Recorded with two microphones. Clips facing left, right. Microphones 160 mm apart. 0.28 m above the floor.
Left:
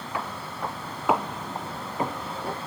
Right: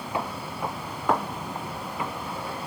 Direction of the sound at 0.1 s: 20° right (ahead or behind).